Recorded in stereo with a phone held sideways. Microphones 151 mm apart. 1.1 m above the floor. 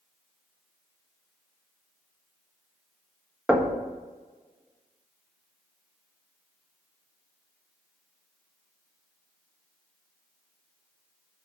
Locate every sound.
3.5 s knocking: 5° right (ahead or behind), 1.1 m